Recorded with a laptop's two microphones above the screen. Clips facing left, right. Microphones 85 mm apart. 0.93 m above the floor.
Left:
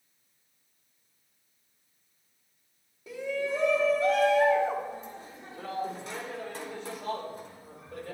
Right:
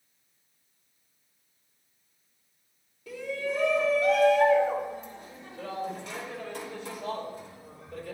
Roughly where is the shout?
Left.